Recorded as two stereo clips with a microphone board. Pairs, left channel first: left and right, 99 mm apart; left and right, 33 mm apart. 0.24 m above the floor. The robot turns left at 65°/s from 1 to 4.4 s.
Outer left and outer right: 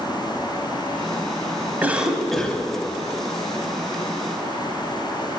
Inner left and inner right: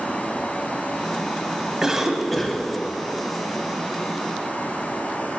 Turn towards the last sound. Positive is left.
turn(degrees=40)